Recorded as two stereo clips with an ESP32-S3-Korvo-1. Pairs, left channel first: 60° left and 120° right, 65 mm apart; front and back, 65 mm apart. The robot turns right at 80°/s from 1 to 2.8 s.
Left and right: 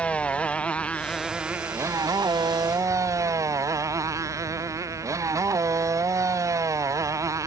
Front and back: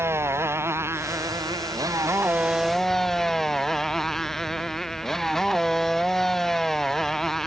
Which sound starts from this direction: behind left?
A motorcycle, at 0.0 s.